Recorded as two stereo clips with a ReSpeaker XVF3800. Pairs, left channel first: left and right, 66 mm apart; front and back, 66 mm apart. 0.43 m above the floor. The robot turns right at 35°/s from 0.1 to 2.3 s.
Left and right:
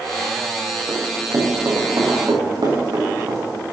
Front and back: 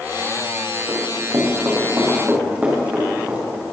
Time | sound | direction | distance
0.9 | running footsteps | 150° right | 6 m